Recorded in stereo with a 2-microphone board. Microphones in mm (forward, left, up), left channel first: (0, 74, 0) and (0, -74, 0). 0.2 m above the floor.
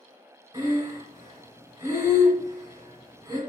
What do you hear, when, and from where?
0.5 s breathing: 25° right (ahead or behind), 1.7 m